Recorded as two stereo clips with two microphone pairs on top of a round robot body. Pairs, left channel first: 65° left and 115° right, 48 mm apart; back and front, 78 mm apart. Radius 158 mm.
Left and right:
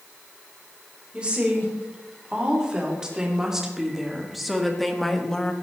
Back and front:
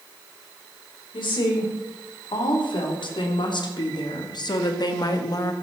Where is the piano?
I don't hear a piano.